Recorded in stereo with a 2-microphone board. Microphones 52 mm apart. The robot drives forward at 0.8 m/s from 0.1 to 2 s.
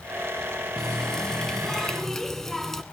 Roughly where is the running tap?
Centre.